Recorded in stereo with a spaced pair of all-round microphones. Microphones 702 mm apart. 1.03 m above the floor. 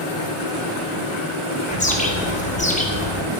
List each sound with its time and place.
1.7 s a bird: 10° left (ahead or behind), 0.6 m